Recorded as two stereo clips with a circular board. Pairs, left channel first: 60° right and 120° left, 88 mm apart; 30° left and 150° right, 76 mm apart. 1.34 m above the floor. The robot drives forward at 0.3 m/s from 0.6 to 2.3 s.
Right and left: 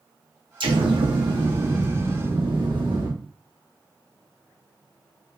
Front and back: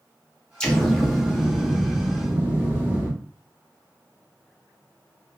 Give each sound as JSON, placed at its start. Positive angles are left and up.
{"t": 0.6, "sound": "an explosion", "azimuth_deg": 110, "distance_m": 0.6}